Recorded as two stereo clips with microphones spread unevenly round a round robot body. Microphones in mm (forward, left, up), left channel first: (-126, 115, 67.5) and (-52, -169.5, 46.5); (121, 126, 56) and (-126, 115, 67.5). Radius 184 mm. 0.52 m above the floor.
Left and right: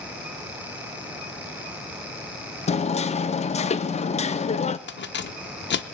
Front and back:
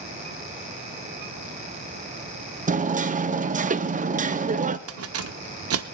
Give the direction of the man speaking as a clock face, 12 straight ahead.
I don't hear a man speaking.